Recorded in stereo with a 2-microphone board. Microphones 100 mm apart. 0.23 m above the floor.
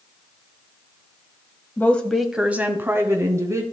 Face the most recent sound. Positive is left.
turn(degrees=-30)  # may be behind; listen again after turning